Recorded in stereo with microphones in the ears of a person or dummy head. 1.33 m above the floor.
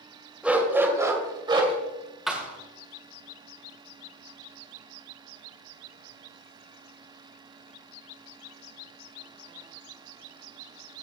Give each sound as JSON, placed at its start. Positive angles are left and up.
{"t": 0.4, "sound": "a dog barking", "side_deg": -5, "distance_m": 2.5}
{"t": 2.3, "sound": "a thud", "side_deg": 0, "distance_m": 1.9}